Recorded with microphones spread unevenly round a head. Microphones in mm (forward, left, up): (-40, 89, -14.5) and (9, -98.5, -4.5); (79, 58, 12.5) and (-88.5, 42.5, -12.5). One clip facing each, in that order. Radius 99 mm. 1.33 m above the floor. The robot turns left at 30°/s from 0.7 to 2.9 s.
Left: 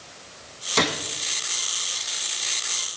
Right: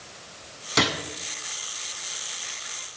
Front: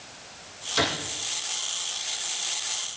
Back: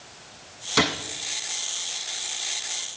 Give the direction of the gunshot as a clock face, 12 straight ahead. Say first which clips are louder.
Left 1 dB, back 3 dB; 5 o'clock.